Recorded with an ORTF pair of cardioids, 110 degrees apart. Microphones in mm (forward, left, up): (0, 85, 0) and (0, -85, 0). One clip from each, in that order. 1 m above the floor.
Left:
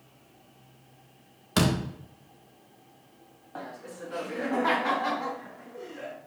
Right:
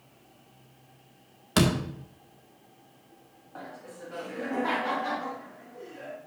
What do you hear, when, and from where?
1.6 s a door slam: 10° right, 1.8 m
3.5 s laughter: 25° left, 1.6 m